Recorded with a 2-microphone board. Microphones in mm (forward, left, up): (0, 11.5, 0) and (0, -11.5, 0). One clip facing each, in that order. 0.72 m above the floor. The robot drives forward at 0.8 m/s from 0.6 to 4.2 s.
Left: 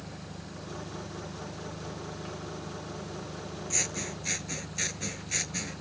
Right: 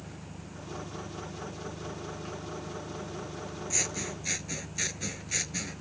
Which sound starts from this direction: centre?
Scissors, at 3.7 s.